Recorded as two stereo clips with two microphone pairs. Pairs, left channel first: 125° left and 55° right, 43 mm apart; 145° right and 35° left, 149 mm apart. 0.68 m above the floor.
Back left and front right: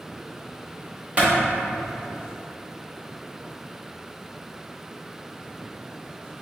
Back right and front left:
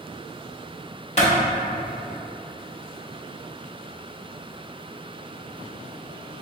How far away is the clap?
About 1.1 m.